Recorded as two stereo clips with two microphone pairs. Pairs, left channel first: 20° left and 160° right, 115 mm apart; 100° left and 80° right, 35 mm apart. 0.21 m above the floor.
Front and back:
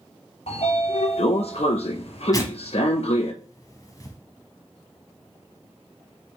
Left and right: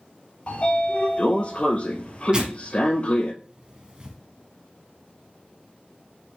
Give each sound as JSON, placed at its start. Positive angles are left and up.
{"t": 0.5, "sound": "a sliding door", "azimuth_deg": 45, "distance_m": 0.7}
{"t": 2.3, "sound": "tearing paper", "azimuth_deg": -25, "distance_m": 0.8}